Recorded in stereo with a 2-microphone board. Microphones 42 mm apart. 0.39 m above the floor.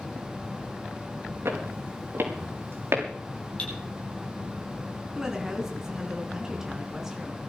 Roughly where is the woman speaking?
Centre.